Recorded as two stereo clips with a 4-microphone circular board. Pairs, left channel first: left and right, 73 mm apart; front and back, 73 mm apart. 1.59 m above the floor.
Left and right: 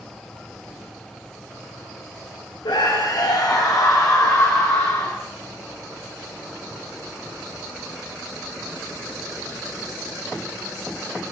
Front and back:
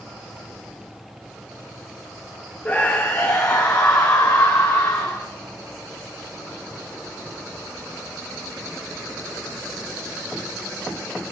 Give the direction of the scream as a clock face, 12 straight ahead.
10 o'clock.